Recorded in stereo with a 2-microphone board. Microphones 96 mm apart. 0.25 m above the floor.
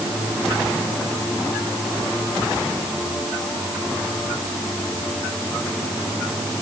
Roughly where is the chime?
I don't hear a chime.